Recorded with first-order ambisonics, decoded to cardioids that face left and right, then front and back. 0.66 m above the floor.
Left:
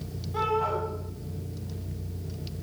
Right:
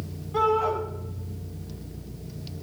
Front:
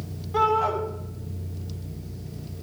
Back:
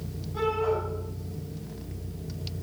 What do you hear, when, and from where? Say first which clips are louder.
0.3 s a shout: right 4 dB, front 5 dB; 5° right, 6.5 m